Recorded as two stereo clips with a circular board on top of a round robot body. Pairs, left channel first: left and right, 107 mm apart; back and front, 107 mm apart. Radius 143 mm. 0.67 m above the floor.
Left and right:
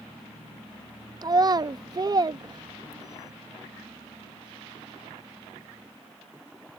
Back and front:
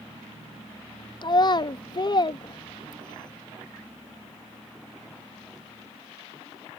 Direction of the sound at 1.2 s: 140° right.